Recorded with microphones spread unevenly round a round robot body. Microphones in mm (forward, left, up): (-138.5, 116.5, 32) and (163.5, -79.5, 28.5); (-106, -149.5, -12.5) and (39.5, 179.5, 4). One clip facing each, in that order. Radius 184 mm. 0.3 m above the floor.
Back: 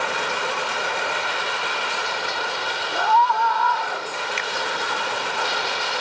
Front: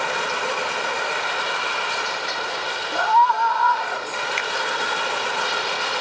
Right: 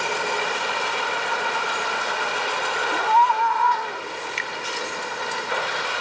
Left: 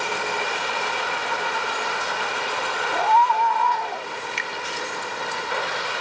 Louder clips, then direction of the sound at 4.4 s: Front 1 dB, even; 110° left.